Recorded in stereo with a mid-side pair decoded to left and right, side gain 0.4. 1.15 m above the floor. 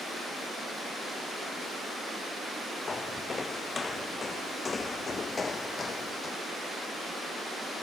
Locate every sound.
2.9 s footsteps: 35° left; by 6.4 s 40° left